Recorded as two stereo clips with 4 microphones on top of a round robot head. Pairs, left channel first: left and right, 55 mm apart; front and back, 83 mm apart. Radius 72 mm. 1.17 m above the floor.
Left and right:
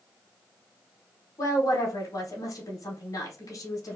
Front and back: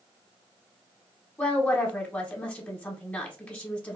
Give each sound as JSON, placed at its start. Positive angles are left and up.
{"t": 1.4, "sound": "a woman speaking", "azimuth_deg": 75, "distance_m": 1.0}